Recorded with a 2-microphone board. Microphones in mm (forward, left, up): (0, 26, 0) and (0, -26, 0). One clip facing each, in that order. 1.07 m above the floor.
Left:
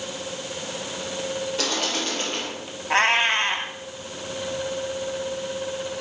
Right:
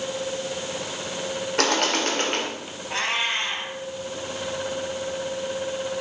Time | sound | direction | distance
1.6 | a bird | 65° right (ahead or behind) | 3 m
2.9 | a cat meowing | 50° left (ahead or behind) | 2.5 m